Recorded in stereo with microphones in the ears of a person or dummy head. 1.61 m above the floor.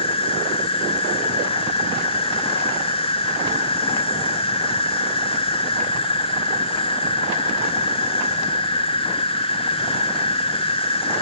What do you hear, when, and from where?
0.0 s an insect: 30° left (ahead or behind), 0.9 m